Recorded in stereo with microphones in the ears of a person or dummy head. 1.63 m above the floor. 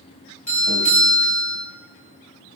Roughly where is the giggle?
No giggle in this recording.